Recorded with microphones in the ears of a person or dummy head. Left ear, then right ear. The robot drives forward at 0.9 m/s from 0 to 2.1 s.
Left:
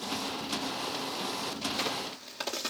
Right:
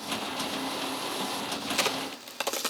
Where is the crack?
55° right (ahead or behind), 0.6 m; by 2.7 s 35° right (ahead or behind), 0.8 m.